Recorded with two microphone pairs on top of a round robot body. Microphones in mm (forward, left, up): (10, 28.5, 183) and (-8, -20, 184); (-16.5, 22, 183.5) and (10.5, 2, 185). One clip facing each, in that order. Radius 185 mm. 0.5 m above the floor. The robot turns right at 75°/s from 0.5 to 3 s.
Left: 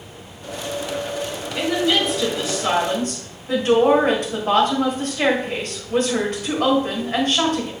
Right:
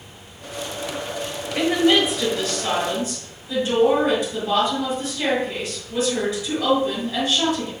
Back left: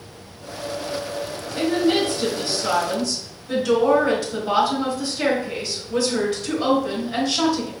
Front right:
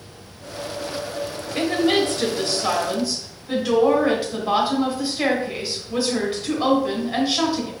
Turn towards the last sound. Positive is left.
turn(degrees=35)